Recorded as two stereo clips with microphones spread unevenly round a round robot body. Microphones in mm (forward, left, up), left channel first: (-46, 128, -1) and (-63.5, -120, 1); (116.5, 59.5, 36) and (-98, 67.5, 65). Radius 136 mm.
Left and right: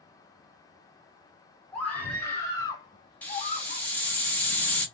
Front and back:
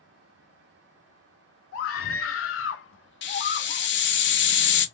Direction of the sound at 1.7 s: Straight ahead.